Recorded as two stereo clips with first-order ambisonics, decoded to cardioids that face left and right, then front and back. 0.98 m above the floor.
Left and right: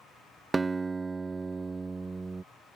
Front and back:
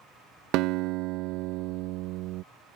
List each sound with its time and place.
0.5 s a guitar: 165° right